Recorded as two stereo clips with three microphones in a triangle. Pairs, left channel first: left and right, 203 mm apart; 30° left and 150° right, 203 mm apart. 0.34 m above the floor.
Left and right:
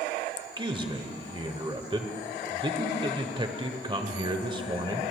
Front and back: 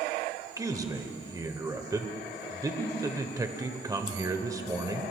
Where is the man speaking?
105° right, 1.0 m.